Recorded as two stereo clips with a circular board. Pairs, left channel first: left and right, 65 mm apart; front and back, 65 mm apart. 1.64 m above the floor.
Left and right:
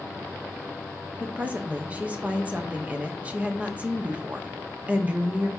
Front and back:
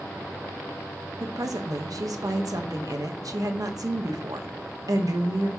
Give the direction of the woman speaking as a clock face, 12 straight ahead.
5 o'clock.